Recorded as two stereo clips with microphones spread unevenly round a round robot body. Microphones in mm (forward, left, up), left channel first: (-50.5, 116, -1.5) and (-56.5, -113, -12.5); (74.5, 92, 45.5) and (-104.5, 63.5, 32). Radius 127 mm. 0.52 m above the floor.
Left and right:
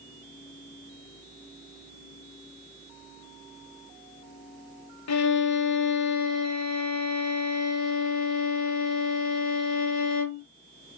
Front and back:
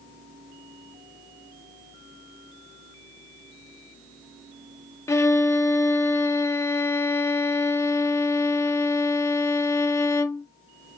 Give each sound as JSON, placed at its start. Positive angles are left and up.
{"t": 5.1, "sound": "a violin", "azimuth_deg": 85, "distance_m": 0.8}